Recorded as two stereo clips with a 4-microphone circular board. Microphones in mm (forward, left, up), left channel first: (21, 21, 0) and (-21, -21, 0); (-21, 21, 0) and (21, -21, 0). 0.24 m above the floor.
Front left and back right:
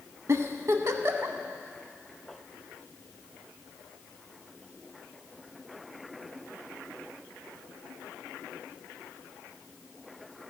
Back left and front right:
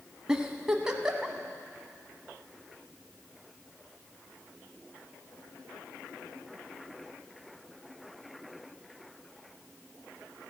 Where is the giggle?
120° right, 0.8 m.